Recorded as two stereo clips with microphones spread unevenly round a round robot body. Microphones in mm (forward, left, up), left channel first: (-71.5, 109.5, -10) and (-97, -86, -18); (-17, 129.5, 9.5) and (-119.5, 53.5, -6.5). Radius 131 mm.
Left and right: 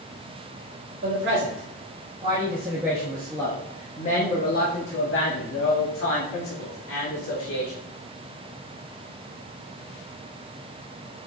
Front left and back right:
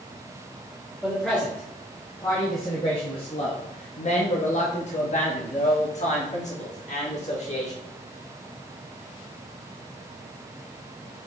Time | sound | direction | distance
1.0 | a man speaking | 60° right | 1.8 m